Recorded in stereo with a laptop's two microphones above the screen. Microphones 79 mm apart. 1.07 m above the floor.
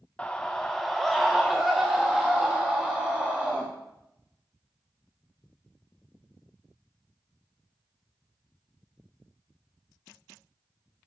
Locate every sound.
0.2 s a scream: 15° left (ahead or behind), 0.8 m; by 3.7 s 10° right (ahead or behind), 2.5 m